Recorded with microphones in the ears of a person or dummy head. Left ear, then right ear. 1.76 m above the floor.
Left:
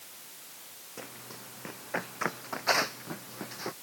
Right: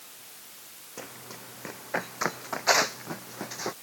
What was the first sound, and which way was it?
Running footsteps, 5° right (ahead or behind).